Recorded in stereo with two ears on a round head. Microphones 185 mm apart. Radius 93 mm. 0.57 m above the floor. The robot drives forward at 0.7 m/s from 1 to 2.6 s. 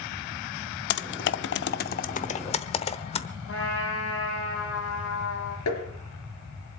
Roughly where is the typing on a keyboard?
Left.